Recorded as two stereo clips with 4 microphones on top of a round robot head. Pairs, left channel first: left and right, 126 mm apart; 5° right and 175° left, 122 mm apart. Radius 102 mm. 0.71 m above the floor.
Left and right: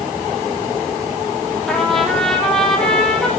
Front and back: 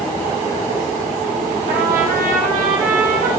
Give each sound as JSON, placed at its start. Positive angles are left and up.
{"t": 1.7, "sound": "a trumpet", "azimuth_deg": 175, "distance_m": 4.5}